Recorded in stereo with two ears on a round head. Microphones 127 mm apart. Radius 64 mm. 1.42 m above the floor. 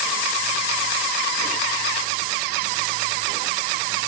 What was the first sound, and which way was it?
Only background noise.